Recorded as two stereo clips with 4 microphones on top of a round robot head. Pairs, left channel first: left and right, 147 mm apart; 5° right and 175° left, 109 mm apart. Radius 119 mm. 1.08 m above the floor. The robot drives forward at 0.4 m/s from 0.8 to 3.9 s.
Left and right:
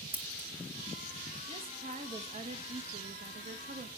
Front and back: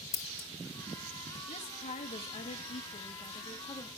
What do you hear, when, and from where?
0.1 s scissors: 10° right, 1.9 m
1.5 s a woman speaking: 30° right, 1.7 m; by 4.0 s 65° right, 1.0 m